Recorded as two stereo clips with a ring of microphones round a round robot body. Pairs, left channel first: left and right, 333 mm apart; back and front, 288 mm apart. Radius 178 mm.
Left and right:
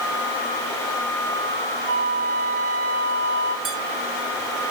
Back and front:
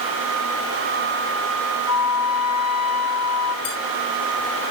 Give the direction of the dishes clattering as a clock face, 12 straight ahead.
5 o'clock.